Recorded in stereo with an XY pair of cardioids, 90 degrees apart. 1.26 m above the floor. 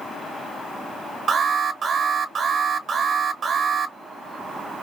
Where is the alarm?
60° right, 0.8 m.